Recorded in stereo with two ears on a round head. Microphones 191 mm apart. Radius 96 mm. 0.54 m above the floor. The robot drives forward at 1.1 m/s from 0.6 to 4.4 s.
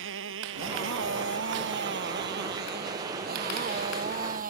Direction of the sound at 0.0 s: 65° right (ahead or behind).